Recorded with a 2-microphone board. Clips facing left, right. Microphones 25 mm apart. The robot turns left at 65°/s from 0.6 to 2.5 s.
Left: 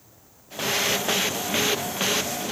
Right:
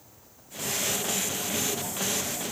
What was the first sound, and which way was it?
Only background noise.